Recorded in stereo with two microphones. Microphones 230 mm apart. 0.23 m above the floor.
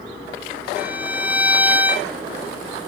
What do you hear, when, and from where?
0.8 s a violin: 5° right (ahead or behind), 1.1 m